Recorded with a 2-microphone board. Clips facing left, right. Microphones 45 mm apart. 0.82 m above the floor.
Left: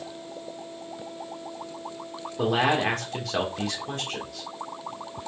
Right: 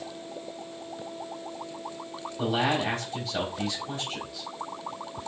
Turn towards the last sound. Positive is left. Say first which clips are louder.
# left 3 dB
turn(degrees=65)  # may be behind; listen again after turning